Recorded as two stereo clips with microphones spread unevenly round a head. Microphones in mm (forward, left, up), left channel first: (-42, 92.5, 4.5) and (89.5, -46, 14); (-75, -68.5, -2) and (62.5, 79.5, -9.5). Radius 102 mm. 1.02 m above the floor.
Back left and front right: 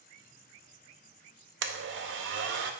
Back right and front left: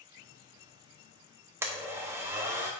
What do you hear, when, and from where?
1.6 s a blender: 30° right, 0.6 m